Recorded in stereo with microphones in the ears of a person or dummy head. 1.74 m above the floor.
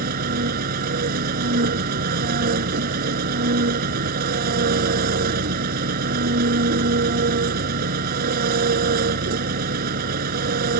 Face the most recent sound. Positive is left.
turn(degrees=-50)  # may be behind; listen again after turning